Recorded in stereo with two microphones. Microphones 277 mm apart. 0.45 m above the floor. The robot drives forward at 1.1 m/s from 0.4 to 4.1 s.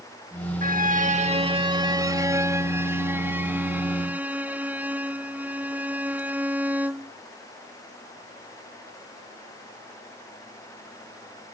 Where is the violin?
30° right (ahead or behind); by 7.1 s 5° right (ahead or behind).